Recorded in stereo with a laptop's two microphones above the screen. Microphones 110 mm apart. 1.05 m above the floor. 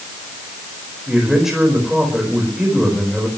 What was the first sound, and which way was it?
A man speaking, 5° right (ahead or behind).